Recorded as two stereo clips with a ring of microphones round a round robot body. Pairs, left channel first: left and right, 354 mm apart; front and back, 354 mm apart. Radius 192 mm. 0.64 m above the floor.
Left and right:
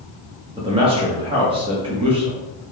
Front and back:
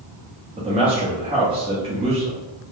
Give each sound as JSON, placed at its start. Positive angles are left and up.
{"t": 0.6, "sound": "a man speaking", "azimuth_deg": -140, "distance_m": 0.7}